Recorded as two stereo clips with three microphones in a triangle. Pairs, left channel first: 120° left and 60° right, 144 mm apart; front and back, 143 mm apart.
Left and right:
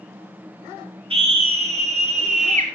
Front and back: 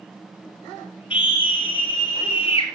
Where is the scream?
30° right, 1.5 m; by 2.6 s 40° right, 2 m.